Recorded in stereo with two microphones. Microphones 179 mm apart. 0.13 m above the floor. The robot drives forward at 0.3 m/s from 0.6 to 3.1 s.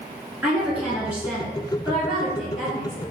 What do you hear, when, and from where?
0.4 s a woman speaking: 5° right (ahead or behind), 1.8 m